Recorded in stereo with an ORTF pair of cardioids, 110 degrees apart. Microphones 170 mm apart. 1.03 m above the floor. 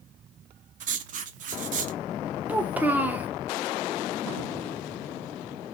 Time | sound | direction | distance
0.8 | writing | 50° right | 0.5 m
2.5 | a child speaking | 10° right | 0.6 m